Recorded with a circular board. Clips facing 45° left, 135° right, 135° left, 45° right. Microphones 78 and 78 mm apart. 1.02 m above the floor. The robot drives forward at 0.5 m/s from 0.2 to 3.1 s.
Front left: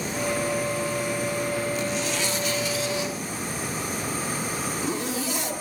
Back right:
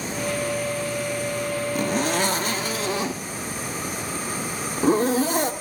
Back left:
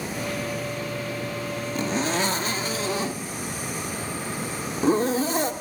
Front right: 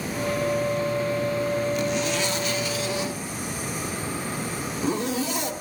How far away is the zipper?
About 1.1 m.